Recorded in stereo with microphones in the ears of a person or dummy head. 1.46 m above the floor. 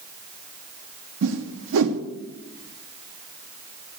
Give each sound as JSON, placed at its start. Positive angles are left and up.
{"t": 1.2, "sound": "a whoosh", "side_deg": -75, "distance_m": 1.1}